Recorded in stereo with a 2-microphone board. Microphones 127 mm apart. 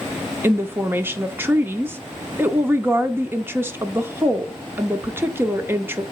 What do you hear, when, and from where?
0.4 s a woman speaking: 15° right (ahead or behind), 0.7 m